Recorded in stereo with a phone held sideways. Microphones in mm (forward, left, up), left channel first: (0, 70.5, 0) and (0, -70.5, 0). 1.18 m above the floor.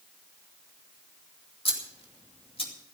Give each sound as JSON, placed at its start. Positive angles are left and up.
{"t": 1.6, "sound": "scissors", "side_deg": 40, "distance_m": 2.5}